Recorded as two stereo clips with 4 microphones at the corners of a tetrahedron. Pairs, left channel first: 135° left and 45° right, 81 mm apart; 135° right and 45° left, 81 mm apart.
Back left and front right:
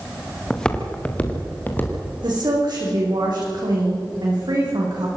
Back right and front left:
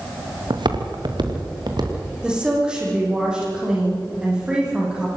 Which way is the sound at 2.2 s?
35° right.